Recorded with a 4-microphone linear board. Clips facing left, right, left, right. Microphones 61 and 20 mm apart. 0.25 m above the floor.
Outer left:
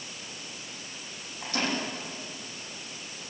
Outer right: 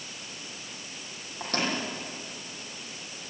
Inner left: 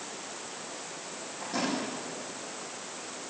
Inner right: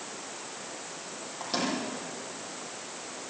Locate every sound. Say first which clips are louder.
1.4 s a microwave: outer right 1 dB, inner right 1 dB; 55° right (ahead or behind), 9.5 m